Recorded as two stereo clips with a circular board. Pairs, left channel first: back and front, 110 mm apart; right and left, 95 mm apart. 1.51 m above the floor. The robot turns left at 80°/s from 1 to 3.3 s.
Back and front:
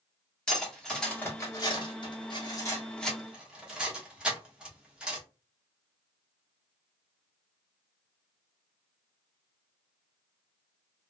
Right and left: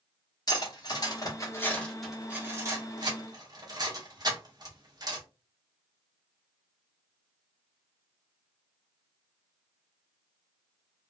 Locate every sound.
0.5 s cutlery clinking: 95° right, 0.9 m; by 5.2 s 80° left, 0.9 m